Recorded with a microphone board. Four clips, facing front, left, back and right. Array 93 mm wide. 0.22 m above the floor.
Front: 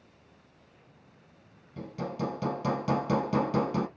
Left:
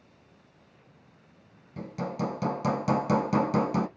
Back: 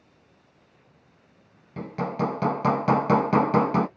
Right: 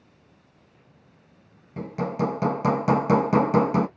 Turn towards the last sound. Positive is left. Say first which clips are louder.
# right 6 dB, back 7 dB
turn(degrees=-150)